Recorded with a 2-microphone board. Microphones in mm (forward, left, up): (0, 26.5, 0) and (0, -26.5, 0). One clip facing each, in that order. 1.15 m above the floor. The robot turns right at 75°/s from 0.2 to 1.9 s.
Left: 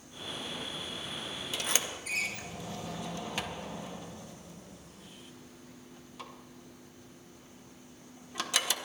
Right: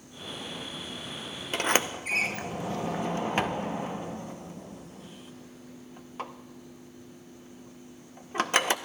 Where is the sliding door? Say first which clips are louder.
Right 10 dB; 50° right (ahead or behind), 0.6 m; by 8.8 s 40° right (ahead or behind), 0.6 m.